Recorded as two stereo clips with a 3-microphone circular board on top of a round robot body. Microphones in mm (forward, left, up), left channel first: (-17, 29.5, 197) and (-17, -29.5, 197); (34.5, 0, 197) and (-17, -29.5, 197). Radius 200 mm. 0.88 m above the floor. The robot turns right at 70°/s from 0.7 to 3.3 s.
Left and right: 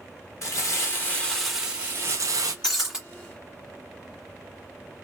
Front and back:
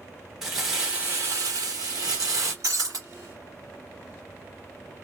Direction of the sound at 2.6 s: 170° left.